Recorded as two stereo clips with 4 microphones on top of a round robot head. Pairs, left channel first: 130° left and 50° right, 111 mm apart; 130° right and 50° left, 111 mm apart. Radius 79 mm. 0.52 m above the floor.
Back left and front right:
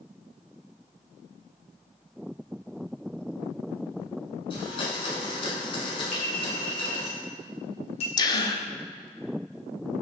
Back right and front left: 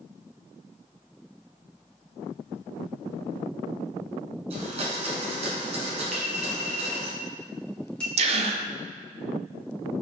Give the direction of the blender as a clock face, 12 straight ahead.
9 o'clock.